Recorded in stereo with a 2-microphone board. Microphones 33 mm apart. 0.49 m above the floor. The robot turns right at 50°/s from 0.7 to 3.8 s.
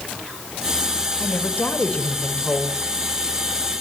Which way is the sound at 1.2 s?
80° left.